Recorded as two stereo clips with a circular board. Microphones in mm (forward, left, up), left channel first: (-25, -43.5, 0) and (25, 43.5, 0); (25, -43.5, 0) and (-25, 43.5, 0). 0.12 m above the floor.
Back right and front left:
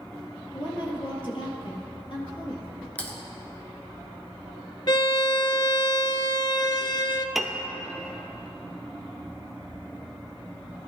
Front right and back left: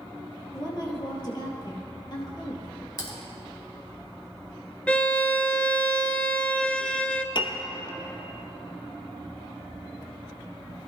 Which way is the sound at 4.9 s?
130° right.